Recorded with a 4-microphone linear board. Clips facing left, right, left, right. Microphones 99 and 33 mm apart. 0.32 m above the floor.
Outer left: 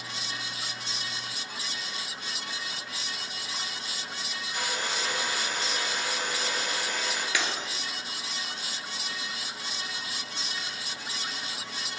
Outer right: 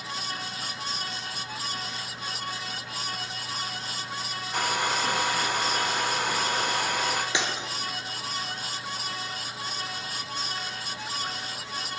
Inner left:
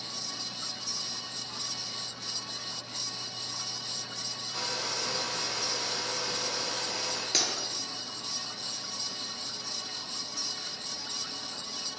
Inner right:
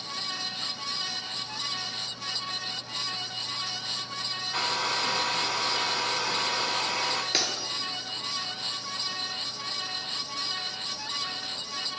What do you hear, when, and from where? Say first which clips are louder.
4.5 s a hair dryer: outer right 6 dB, inner right 6 dB; 65° right (ahead or behind), 1.3 m
7.3 s breaking glass: outer right 2 dB, inner right 2 dB; 25° right (ahead or behind), 1.9 m